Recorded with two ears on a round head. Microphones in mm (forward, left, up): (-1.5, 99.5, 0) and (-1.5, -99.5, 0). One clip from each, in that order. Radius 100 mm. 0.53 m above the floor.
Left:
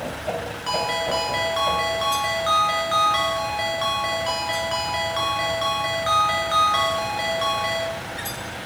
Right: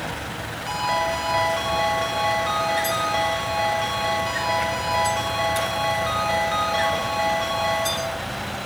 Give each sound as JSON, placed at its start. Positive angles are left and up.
{"t": 0.7, "sound": "a ringtone", "side_deg": 40, "distance_m": 3.5}